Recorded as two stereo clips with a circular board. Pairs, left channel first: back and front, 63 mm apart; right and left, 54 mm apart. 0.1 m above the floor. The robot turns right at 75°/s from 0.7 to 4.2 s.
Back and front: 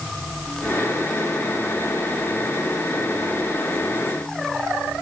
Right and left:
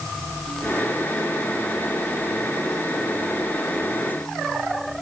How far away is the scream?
No scream in this recording.